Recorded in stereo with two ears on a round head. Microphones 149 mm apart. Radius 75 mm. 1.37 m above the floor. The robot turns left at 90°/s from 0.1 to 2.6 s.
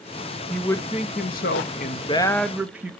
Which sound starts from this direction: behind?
A man speaking, at 0.5 s.